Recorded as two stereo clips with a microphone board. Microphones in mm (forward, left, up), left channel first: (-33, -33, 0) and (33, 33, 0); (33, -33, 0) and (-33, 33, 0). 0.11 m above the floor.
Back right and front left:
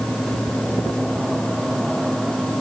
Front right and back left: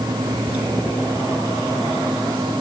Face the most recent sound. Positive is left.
No sound to turn to.